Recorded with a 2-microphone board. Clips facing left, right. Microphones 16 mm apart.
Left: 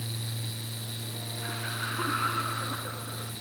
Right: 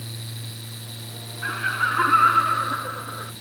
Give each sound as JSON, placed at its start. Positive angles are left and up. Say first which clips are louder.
{"t": 1.4, "sound": "laughter", "louder": "right 12 dB", "side_deg": -70}